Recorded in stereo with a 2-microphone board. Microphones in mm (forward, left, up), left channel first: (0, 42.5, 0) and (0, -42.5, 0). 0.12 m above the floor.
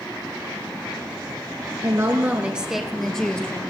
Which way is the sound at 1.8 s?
40° right (ahead or behind).